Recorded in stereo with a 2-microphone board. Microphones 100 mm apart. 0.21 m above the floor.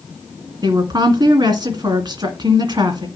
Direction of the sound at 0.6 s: 40° right (ahead or behind).